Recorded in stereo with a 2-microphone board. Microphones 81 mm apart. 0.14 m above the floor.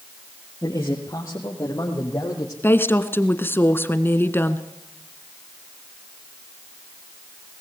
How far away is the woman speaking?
About 1.5 m.